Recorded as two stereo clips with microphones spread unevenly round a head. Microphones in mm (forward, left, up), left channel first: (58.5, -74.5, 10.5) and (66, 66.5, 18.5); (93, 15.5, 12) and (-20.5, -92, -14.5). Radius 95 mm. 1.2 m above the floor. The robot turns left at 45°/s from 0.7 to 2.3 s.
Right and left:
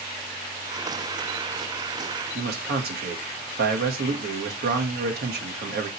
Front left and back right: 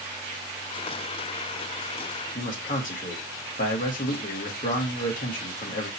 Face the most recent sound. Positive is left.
turn(degrees=100)